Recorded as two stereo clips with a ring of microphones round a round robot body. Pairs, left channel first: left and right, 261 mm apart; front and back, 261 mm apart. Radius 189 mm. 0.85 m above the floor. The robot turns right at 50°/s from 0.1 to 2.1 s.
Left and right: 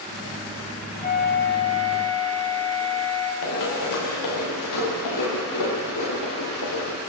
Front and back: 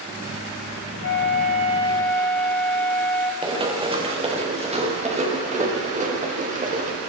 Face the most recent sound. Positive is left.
turn(degrees=120)